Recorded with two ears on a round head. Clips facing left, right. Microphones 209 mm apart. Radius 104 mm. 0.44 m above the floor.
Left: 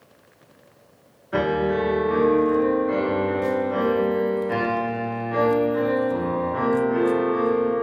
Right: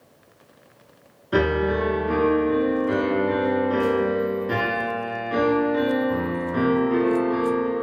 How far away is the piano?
About 1.1 m.